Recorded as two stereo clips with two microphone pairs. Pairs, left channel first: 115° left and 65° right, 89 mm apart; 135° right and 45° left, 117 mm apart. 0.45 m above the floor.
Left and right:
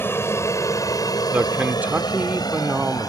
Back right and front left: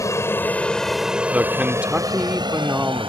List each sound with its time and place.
0.0 s an aircraft: 175° left; by 3.1 s 80° left
1.3 s a man speaking: 20° right